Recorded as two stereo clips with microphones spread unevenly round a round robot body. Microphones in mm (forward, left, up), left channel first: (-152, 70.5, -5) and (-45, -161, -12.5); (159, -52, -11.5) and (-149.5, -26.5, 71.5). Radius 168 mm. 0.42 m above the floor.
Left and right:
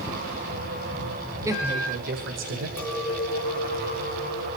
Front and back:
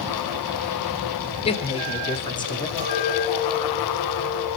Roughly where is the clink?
Behind.